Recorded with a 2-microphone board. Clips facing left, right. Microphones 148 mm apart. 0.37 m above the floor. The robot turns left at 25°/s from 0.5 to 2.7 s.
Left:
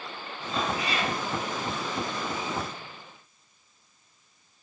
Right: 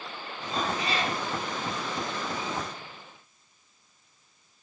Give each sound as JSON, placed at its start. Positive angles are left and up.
{"t": 0.5, "sound": "a cat meowing", "side_deg": -40, "distance_m": 1.5}